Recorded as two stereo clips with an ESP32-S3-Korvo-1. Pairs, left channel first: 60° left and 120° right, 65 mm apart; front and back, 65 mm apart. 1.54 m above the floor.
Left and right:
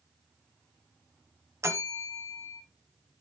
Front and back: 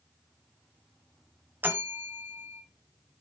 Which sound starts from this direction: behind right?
A bell, at 1.6 s.